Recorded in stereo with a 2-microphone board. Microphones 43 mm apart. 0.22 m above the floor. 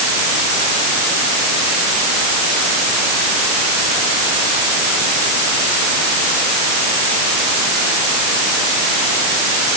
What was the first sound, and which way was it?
Only background noise.